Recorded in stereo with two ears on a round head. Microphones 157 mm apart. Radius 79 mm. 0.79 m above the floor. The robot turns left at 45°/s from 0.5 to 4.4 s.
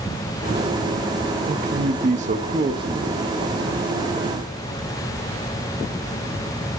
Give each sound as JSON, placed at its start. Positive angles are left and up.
{"t": 1.5, "sound": "a man speaking", "azimuth_deg": -75, "distance_m": 1.1}